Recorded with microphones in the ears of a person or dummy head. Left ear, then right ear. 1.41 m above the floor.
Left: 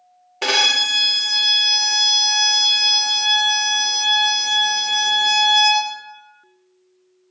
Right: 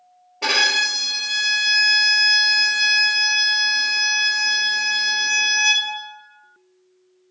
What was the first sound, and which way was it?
A violin, 50° left (ahead or behind).